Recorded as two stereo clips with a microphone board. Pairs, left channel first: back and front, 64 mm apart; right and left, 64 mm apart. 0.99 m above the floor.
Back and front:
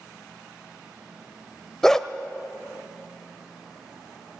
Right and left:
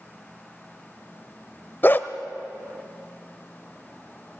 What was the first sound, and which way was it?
A dog barking, 100° right.